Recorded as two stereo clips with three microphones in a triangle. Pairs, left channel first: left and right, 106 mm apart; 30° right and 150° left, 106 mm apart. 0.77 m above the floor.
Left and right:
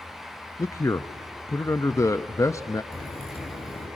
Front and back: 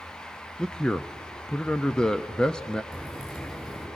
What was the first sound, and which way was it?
A man speaking, 50° left.